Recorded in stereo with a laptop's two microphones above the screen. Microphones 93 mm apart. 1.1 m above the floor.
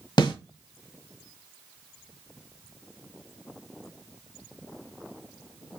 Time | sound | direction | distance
0.2 | a snare drum | 55° left (ahead or behind) | 1.3 m